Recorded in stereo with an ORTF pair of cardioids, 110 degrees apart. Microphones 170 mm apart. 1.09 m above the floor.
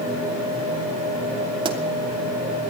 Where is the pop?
30° right, 2.5 m.